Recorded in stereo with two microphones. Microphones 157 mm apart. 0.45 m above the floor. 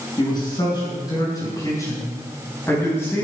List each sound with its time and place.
0.2 s a man speaking: 30° left (ahead or behind), 5.5 m; by 3.2 s 10° left (ahead or behind), 4 m